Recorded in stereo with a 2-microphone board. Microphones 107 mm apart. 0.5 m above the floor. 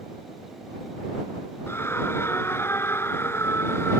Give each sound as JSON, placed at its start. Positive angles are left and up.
{"t": 1.7, "sound": "a scream", "side_deg": 25}